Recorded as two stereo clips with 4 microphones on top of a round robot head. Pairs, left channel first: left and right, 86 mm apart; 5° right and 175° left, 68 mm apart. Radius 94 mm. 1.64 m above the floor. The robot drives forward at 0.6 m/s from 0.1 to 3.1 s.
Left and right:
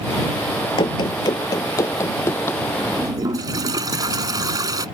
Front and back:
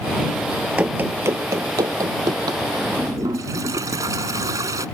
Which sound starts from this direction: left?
Running footsteps, at 0.8 s.